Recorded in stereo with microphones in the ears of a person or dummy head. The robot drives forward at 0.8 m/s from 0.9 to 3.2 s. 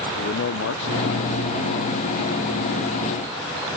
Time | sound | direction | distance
0.2 | a man speaking | 70° left (ahead or behind) | 0.8 m